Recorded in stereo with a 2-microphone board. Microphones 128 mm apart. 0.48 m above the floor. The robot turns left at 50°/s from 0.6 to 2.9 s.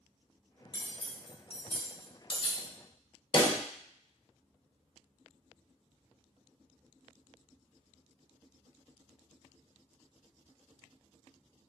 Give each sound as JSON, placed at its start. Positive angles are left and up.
{"t": 0.7, "sound": "cutlery clinking", "side_deg": 35, "distance_m": 0.6}
{"t": 3.3, "sound": "a pop", "side_deg": 35, "distance_m": 0.6}